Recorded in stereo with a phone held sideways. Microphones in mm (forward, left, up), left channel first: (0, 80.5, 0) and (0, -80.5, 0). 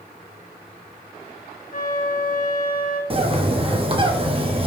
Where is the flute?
55° left (ahead or behind), 2.5 m.